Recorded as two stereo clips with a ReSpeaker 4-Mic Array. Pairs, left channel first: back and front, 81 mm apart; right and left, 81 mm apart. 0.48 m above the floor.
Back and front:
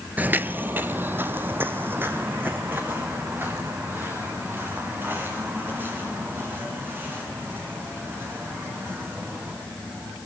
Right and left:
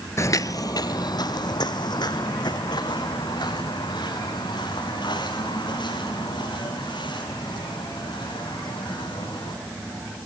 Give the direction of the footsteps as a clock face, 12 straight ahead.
2 o'clock.